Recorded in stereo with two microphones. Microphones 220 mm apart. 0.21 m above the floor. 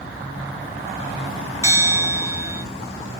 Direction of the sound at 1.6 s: 15° right (ahead or behind).